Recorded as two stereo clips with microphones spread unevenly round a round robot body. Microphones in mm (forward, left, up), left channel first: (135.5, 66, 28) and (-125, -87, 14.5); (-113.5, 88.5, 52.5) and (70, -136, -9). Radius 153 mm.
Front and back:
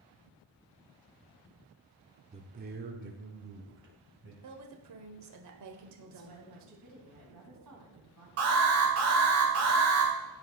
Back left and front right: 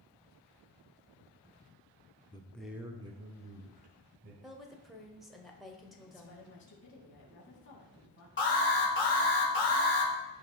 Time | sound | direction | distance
2.3 | a man speaking | 150° right | 0.9 m
4.4 | a woman speaking | 135° right | 1.4 m
6.1 | a woman speaking | 175° right | 3.5 m
8.4 | an alarm | 175° right | 3 m